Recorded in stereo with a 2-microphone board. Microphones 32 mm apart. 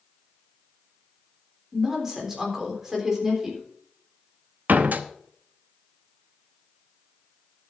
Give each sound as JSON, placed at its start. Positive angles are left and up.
{"t": 1.7, "sound": "a woman speaking", "side_deg": -15, "distance_m": 3.5}
{"t": 4.7, "sound": "a door slam", "side_deg": -75, "distance_m": 0.8}